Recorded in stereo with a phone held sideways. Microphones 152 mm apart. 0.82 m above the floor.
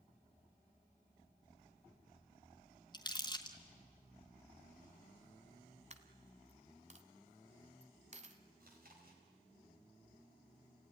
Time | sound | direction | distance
2.9 | crumpling | 30° left (ahead or behind) | 1.6 m
5.9 | a dropped coin | 45° right (ahead or behind) | 1.1 m
8.6 | chewing | 70° right (ahead or behind) | 4 m